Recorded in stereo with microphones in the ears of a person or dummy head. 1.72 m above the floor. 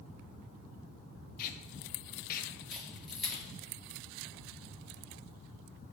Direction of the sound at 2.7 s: Centre (ahead or behind).